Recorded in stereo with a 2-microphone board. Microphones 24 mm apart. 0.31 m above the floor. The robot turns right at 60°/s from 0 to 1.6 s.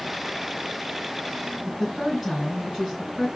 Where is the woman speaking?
15° right (ahead or behind), 3 m.